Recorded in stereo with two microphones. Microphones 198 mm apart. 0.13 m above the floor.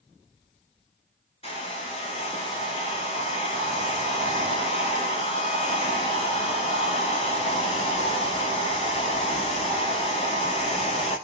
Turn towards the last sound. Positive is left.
turn(degrees=30)  # may be behind; listen again after turning